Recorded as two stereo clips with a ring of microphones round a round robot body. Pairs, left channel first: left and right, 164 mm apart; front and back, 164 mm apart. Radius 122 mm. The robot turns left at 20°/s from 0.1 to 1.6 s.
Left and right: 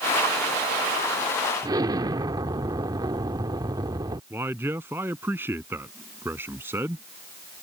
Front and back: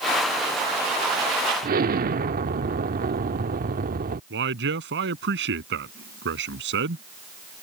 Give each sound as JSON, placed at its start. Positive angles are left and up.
{"t": 1.6, "sound": "an explosion", "azimuth_deg": -155}
{"t": 4.3, "sound": "a man speaking", "azimuth_deg": -170}